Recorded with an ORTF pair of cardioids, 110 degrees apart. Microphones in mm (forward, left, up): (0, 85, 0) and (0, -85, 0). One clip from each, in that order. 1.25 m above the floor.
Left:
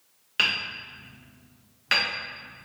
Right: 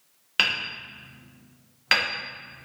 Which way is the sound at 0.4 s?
25° right.